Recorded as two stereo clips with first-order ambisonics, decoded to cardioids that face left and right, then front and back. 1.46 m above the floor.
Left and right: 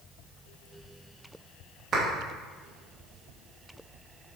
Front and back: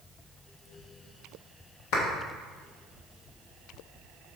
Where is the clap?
20° right, 2 m.